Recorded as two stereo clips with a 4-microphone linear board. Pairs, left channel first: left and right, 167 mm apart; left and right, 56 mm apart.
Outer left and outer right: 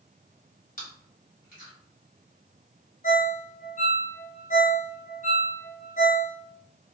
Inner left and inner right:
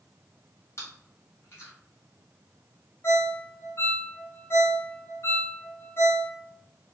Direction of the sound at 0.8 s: 55° left (ahead or behind).